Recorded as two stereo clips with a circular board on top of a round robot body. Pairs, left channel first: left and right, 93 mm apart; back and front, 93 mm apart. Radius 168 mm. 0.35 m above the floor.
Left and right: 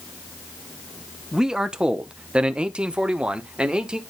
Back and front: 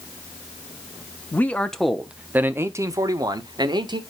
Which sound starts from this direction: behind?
A man speaking, at 1.3 s.